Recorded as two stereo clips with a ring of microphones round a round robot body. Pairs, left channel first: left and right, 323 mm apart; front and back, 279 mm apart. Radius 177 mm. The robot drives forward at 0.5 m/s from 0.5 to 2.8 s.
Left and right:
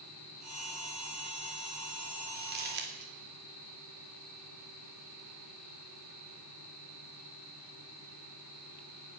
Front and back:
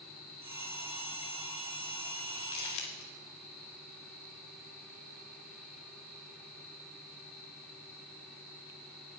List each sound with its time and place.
2.4 s crumpling: 30° right, 2.5 m